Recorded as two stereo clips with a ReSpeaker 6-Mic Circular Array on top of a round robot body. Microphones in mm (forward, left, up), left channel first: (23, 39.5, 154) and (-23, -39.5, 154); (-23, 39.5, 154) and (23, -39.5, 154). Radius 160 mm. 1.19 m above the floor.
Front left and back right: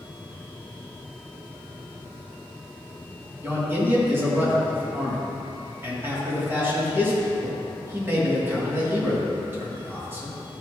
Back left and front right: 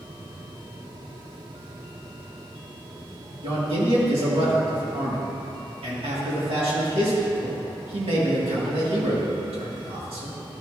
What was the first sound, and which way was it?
A man speaking, 55° right.